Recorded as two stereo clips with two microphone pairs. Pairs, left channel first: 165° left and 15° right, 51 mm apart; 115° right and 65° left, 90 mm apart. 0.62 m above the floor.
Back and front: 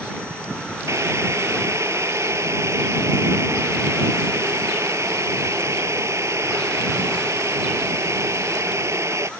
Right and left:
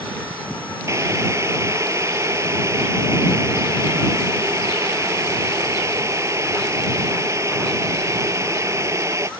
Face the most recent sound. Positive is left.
turn(degrees=10)